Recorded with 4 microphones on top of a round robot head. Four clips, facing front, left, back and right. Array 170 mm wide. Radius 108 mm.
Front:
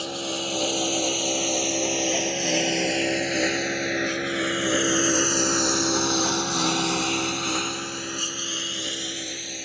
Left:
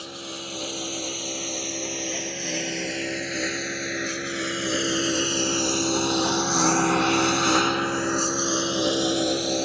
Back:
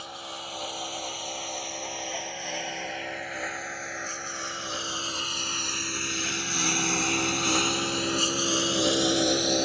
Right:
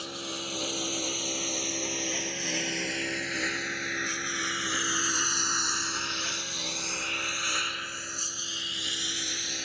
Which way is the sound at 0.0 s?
Straight ahead.